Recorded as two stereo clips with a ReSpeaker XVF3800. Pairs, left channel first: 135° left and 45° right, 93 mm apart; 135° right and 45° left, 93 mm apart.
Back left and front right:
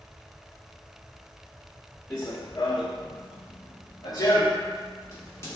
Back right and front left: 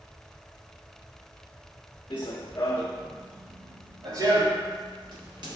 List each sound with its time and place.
2.1 s running footsteps: 165° right, 0.7 m; by 5.6 s 75° left, 1.7 m